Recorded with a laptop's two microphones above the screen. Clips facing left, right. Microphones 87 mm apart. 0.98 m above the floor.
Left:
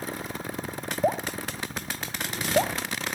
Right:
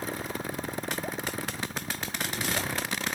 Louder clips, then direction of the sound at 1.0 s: Left 7 dB; 55° left (ahead or behind).